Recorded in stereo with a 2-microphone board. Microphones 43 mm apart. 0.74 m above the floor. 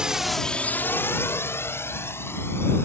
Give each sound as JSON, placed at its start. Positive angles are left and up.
{"t": 0.0, "sound": "a drone", "side_deg": -20}